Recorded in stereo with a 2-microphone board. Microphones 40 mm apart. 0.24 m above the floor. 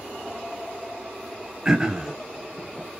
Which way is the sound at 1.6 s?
20° right (ahead or behind).